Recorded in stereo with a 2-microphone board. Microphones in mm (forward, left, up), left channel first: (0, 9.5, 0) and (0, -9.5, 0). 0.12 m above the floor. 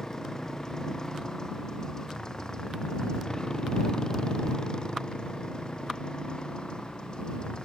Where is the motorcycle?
25° left (ahead or behind); by 7.7 s 40° left (ahead or behind).